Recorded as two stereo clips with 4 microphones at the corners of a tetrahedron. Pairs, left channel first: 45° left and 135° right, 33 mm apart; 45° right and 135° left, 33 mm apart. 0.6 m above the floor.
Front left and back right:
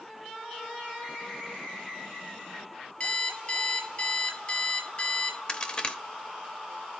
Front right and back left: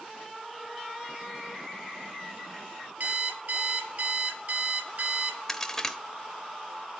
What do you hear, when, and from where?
3.0 s an alarm clock: 105° left, 4.5 m
5.5 s a crack: 15° left, 1.2 m